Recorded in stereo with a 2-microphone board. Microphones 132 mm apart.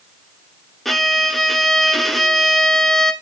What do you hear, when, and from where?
0.8 s a violin: centre (ahead or behind), 0.8 m